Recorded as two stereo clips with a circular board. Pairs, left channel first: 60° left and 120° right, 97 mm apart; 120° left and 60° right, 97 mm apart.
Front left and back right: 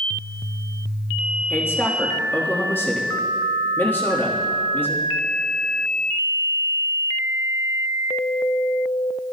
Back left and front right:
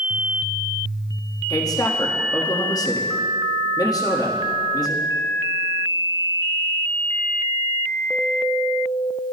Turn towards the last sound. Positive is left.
turn(degrees=115)